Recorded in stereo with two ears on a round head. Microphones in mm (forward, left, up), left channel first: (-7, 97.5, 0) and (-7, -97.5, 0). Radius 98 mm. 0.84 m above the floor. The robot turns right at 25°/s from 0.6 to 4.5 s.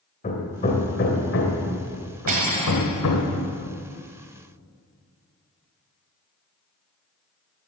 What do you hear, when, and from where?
0.2 s hammering: 30° left (ahead or behind), 2 m; by 3.3 s 80° left, 2 m
2.3 s cutlery clinking: 40° right (ahead or behind), 2.5 m; by 2.9 s 25° right (ahead or behind), 2.5 m